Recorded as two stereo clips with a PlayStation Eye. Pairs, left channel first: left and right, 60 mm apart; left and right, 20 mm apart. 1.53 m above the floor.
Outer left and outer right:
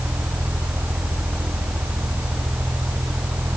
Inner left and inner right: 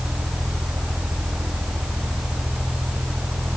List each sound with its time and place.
Only background noise.